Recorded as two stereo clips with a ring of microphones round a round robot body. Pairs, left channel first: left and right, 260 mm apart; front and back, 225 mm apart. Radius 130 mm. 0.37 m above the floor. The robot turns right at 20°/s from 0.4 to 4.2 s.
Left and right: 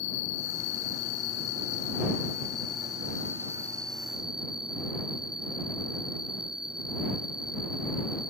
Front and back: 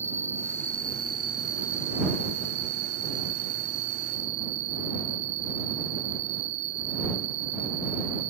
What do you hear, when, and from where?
0.0 s an insect: 105° left; by 8.3 s 175° right